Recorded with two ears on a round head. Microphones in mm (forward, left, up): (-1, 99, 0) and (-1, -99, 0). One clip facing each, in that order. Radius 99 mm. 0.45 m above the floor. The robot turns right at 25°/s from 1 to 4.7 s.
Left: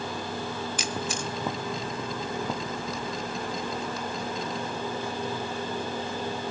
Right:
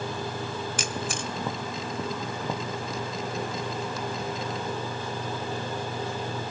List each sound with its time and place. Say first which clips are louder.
0.8 s a camera shutter: even; 40° right (ahead or behind), 1.0 m; by 1.3 s 50° right (ahead or behind), 1.0 m